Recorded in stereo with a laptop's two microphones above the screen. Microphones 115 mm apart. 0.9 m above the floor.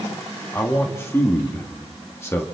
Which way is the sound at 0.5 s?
25° left (ahead or behind).